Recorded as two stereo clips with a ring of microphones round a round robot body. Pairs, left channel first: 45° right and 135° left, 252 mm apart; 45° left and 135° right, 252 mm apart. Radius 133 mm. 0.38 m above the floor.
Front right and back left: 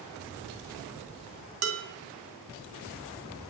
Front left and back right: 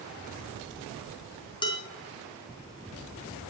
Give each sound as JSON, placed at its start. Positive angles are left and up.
{"t": 1.6, "sound": "dishes clattering", "azimuth_deg": 115, "distance_m": 2.5}